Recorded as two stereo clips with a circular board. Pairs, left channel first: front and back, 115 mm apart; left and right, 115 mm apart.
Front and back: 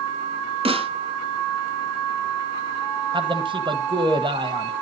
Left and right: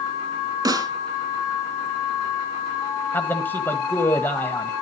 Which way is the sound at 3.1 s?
160° left.